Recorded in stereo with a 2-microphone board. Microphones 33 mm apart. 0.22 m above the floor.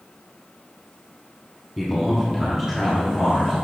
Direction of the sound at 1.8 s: Centre (ahead or behind).